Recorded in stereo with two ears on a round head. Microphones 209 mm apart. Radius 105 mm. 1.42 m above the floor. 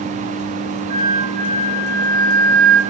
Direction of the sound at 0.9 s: 30° right (ahead or behind).